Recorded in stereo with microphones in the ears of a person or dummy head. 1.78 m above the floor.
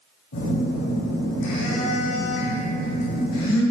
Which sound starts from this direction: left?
A phone buzzing, at 0.3 s.